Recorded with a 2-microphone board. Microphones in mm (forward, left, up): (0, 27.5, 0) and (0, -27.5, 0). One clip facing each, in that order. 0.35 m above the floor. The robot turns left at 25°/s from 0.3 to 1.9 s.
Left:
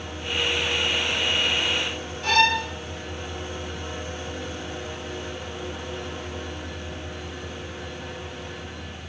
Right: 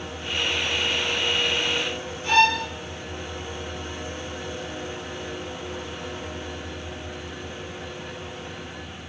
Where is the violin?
90° left, 2.5 m.